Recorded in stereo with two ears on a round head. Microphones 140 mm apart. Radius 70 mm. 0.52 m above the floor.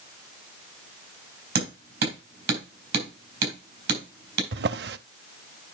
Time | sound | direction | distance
1.6 | hammering | 80° right | 4.5 m
4.5 | a drawer | 80° right | 0.6 m